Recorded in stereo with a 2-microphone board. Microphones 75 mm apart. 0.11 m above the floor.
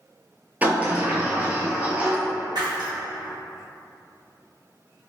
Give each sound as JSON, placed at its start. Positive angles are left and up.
{"t": 0.6, "sound": "a sliding door", "side_deg": -20, "distance_m": 0.7}
{"t": 2.5, "sound": "breaking glass", "side_deg": -65, "distance_m": 1.6}